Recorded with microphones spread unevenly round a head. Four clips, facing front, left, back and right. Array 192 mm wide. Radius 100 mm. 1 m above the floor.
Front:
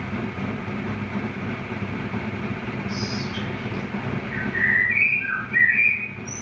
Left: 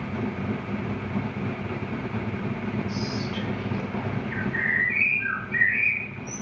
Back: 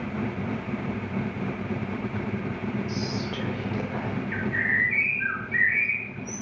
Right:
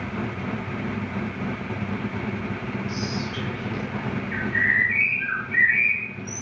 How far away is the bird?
About 3 m.